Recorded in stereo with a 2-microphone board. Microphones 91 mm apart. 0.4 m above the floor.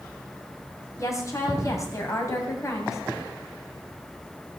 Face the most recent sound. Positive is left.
turn(degrees=35)  # may be behind; listen again after turning